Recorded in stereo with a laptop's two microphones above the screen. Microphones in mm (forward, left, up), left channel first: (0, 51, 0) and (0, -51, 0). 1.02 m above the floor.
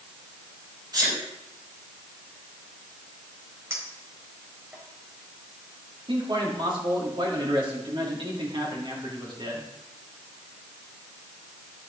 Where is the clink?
25° right (ahead or behind), 4 m.